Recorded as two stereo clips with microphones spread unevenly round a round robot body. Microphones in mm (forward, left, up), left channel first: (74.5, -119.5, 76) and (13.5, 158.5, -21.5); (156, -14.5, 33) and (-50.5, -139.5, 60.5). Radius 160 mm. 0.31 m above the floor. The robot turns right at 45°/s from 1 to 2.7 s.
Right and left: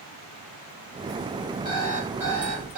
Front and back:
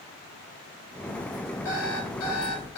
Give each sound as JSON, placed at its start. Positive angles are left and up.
{"t": 1.6, "sound": "an alarm clock", "azimuth_deg": 0, "distance_m": 4.0}